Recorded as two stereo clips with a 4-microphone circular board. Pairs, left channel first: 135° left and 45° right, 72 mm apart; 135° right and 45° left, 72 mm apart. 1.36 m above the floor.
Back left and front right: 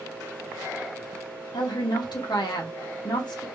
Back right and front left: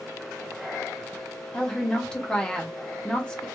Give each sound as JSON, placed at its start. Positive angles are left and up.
{"t": 1.5, "sound": "a woman speaking", "azimuth_deg": 145, "distance_m": 1.2}